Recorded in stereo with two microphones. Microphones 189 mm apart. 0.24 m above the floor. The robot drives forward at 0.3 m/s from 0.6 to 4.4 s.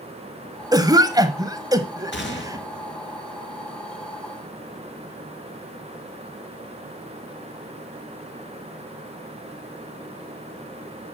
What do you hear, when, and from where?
0.7 s a cough: 20° right (ahead or behind), 1.1 m; by 2.6 s 15° right (ahead or behind), 1.2 m
2.1 s a gunshot: 65° left (ahead or behind), 2 m; by 2.9 s 70° left (ahead or behind), 2 m